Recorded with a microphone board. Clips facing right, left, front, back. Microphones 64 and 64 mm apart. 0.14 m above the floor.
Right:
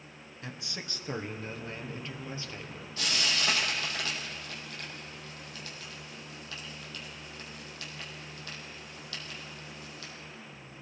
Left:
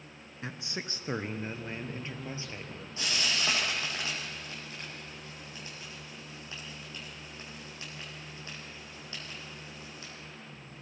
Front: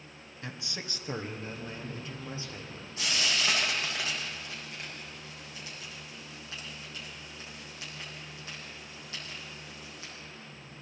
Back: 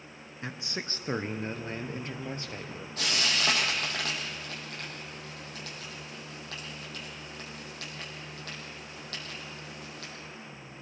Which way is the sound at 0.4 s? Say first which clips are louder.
Left 3 dB, back 4 dB; 135° left.